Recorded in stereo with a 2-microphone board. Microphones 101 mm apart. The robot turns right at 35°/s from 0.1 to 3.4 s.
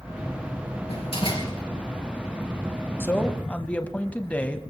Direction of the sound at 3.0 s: 20° left (ahead or behind).